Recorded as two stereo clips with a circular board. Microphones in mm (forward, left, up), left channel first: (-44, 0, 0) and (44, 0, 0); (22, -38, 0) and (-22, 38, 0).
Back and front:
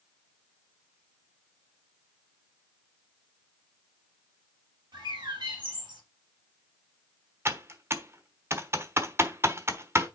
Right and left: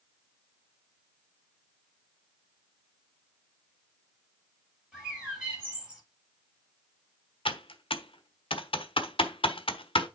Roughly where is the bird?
Ahead left.